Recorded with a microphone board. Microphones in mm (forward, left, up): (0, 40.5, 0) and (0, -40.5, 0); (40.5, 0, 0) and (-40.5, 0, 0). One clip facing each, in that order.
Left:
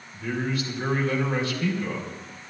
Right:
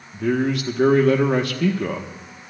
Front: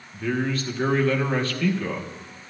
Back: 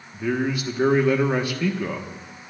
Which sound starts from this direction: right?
A man speaking, at 0.1 s.